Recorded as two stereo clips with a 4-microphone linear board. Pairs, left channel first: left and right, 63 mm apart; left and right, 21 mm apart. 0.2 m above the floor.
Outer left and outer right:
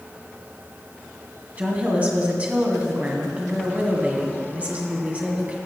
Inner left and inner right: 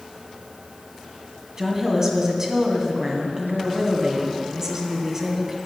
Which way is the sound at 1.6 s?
25° right (ahead or behind).